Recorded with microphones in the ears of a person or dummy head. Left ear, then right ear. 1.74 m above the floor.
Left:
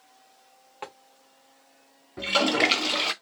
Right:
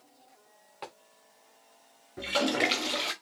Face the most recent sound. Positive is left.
turn(degrees=20)  # may be behind; listen again after turning